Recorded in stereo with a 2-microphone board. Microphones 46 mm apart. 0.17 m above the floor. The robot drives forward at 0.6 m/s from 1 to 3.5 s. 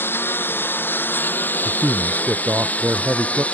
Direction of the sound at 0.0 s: 55° left (ahead or behind).